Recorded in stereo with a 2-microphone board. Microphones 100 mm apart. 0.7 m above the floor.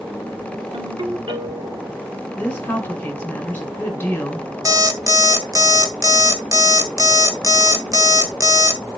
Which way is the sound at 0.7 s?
60° right (ahead or behind).